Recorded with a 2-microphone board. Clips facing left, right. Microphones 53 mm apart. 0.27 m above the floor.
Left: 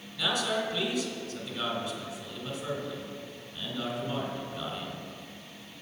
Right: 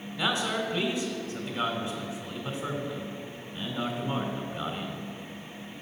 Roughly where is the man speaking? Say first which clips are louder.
Right 1 dB; right.